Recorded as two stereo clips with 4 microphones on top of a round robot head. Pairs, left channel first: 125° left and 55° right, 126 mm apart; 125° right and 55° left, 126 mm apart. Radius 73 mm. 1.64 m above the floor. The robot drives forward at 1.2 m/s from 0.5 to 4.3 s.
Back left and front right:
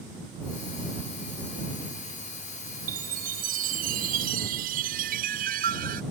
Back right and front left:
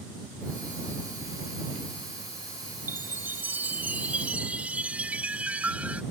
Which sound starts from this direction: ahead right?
A chime, at 2.9 s.